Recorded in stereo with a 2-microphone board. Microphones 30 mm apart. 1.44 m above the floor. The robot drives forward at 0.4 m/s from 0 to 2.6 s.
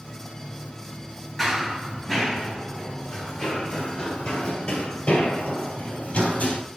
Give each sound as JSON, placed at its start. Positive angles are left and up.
{"t": 1.4, "sound": "running footsteps", "side_deg": 5, "distance_m": 1.5}